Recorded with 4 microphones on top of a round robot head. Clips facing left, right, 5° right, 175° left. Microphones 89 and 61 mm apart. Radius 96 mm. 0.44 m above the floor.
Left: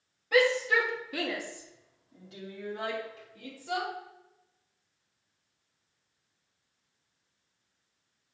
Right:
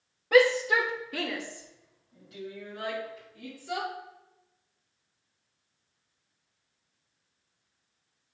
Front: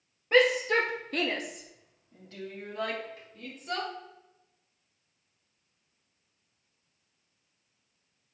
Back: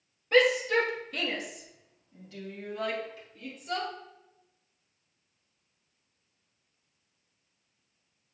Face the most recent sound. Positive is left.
turn(degrees=45)